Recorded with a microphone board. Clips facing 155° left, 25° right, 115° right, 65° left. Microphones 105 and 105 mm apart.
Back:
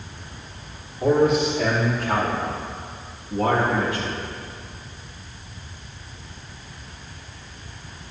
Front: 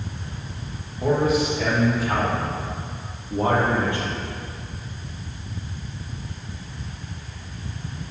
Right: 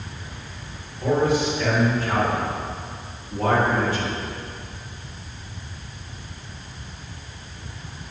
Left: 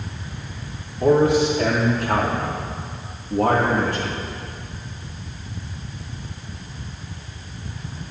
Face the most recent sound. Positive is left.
turn(degrees=35)